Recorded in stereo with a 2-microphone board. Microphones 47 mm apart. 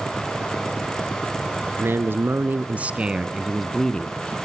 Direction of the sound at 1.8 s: 55° right (ahead or behind).